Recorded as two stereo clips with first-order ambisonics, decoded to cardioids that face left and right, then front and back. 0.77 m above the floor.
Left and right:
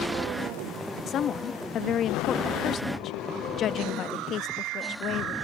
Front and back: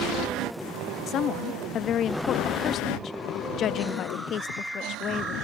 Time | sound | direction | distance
1.1 | a woman speaking | 45° left | ?